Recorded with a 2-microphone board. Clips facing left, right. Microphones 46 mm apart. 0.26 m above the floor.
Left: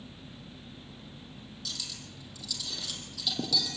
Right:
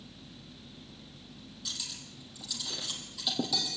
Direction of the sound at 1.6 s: 15° right (ahead or behind).